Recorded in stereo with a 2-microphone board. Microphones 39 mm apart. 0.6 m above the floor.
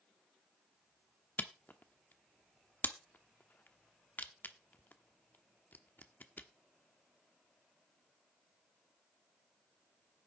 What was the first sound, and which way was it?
A camera shutter, 45° left (ahead or behind).